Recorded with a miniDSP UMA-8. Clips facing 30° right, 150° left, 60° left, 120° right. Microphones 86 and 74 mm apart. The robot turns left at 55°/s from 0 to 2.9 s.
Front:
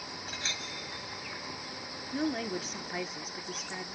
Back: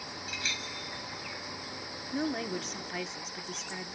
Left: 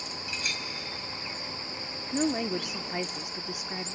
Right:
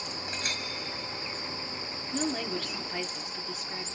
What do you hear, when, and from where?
0.3 s a clink: 80° right, 1.4 m; by 0.6 s 100° right, 1.4 m
2.1 s a woman speaking: 80° left, 0.7 m; by 4.0 s 35° left, 0.7 m